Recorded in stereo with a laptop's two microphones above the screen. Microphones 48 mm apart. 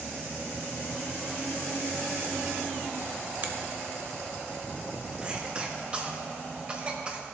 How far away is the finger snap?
About 0.9 m.